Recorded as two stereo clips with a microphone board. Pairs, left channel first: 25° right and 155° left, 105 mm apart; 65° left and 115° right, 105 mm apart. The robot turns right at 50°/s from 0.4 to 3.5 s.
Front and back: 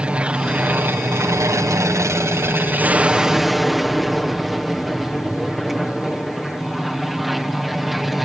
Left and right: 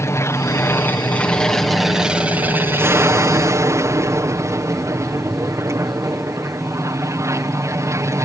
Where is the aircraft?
90° left; by 8.2 s 115° right.